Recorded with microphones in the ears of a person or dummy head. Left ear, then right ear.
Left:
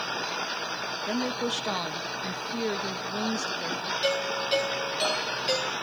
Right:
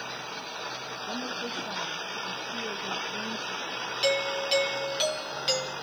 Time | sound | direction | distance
1.1 | a woman speaking | 70° left (ahead or behind) | 1.5 m
4.0 | a doorbell | 15° right (ahead or behind) | 3 m